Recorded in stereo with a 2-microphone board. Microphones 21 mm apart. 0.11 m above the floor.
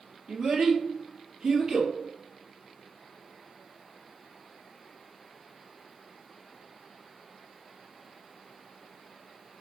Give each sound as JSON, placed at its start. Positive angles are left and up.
{"t": 0.3, "sound": "a child speaking", "side_deg": -40, "distance_m": 2.5}